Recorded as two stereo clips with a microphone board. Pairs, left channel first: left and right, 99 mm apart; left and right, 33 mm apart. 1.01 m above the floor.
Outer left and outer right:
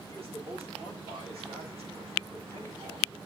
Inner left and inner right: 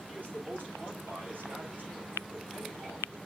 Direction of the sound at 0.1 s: 75° right (ahead or behind).